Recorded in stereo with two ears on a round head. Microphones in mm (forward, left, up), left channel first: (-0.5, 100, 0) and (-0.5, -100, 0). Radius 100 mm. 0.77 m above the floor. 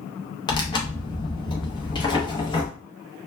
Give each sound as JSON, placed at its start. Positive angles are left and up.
{"t": 0.5, "sound": "tearing paper", "side_deg": 20, "distance_m": 0.6}